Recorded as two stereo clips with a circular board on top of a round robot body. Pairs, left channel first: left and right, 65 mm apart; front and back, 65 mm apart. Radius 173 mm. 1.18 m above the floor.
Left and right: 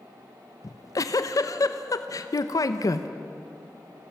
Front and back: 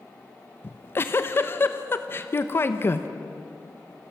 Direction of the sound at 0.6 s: 55° left.